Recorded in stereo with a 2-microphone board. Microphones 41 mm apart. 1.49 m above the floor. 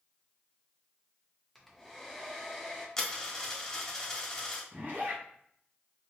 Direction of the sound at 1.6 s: 5° left (ahead or behind).